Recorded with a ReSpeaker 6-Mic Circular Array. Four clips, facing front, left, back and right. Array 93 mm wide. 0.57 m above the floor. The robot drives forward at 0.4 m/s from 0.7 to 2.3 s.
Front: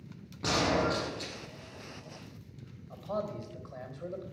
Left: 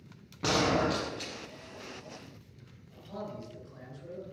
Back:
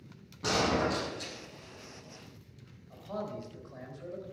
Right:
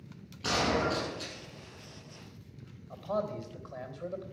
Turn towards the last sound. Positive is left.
turn(degrees=-60)